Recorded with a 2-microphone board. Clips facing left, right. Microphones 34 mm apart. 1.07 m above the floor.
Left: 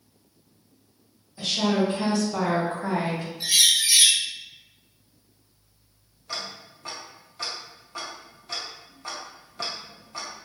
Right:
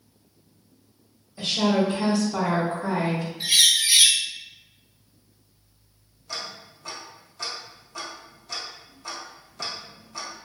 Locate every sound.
1.4 s a woman speaking: 5° right (ahead or behind), 1.2 m; by 3.3 s 20° left (ahead or behind), 1.0 m
3.4 s a bird: 35° right (ahead or behind), 0.6 m
6.3 s ticking: 25° left (ahead or behind), 0.8 m